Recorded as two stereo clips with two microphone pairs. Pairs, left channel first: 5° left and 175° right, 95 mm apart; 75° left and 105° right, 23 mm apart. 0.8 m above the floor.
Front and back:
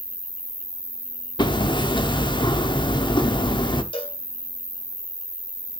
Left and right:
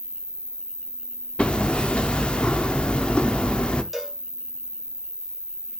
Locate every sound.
0.0 s an insect: 45° right, 1.0 m
1.4 s hammering: 40° left, 0.9 m
3.9 s a cowbell: 20° right, 1.9 m